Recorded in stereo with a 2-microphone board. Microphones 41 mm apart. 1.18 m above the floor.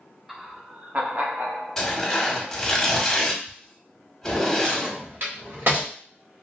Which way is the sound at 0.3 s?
5° right (ahead or behind).